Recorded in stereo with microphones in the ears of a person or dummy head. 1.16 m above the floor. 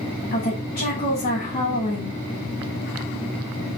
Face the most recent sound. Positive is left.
turn(degrees=40)  # may be behind; listen again after turning